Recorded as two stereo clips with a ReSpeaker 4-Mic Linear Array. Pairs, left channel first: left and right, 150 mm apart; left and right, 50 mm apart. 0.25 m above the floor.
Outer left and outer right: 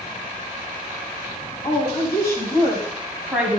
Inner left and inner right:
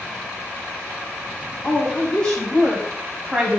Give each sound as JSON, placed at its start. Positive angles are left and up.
{"t": 1.6, "sound": "a woman speaking", "side_deg": 35, "distance_m": 1.6}